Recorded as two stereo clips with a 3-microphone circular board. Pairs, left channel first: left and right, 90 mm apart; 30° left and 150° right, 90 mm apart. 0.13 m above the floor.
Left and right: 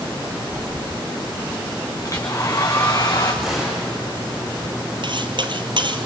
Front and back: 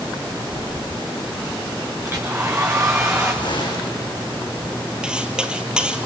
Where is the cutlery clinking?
70° right, 1.6 m.